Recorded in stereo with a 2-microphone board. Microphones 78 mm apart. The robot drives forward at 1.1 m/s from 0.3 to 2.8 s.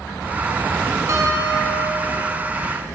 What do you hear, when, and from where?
1.1 s a guitar: 45° right (ahead or behind), 4 m; by 2.3 s 60° right (ahead or behind), 3 m